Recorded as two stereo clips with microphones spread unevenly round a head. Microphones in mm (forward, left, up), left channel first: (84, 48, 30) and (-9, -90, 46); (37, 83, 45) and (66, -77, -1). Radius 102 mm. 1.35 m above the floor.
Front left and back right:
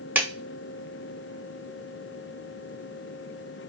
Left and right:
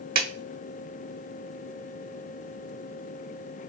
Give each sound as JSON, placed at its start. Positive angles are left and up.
{"t": 0.1, "sound": "a clap", "azimuth_deg": -45, "distance_m": 0.8}